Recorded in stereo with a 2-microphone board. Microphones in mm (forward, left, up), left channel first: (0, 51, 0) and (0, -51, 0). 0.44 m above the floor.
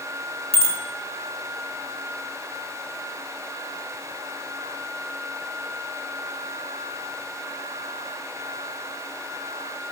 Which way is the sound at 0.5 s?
75° left (ahead or behind).